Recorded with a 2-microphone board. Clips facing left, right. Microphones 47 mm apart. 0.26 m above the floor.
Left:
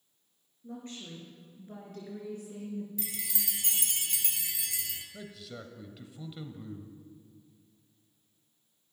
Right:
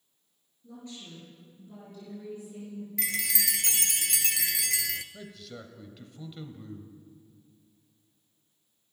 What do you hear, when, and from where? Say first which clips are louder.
0.6 s a woman speaking: left 2 dB; 35° left (ahead or behind), 4 m; by 2.9 s 70° left (ahead or behind), 3 m
3.0 s a chime: right 9 dB; 85° right, 0.7 m
5.1 s a man speaking: even; centre (ahead or behind), 0.9 m